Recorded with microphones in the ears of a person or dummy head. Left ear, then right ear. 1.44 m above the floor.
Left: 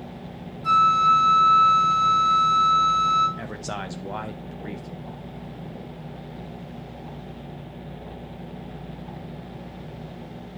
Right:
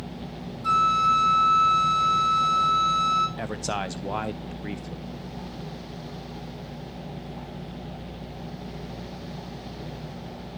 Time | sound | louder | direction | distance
0.6 | a flute | left 3 dB | 15° right (ahead or behind) | 4.5 m
3.4 | a man speaking | right 3 dB | 20° right (ahead or behind) | 0.5 m